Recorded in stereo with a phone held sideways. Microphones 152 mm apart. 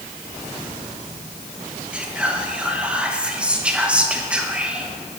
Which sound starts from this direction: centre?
Whispering, at 1.9 s.